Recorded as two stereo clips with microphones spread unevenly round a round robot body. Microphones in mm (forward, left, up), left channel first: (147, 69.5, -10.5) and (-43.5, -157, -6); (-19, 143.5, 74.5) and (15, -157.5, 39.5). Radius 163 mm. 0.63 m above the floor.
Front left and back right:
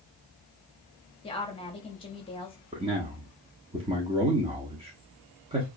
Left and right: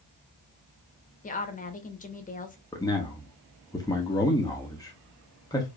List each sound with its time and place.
1.2 s a woman speaking: 75° left, 0.9 m
2.7 s a man speaking: 175° left, 0.9 m